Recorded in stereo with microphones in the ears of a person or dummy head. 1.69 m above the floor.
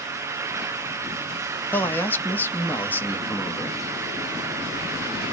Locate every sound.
1.7 s a man speaking: 10° left (ahead or behind), 0.6 m